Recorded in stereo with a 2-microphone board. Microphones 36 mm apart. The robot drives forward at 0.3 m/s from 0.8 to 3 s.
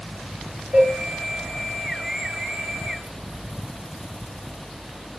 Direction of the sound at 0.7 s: 65° right (ahead or behind).